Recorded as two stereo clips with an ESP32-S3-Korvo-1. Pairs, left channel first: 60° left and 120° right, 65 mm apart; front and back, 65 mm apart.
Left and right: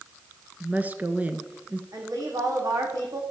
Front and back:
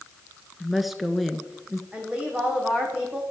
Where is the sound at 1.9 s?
110° right, 5 m.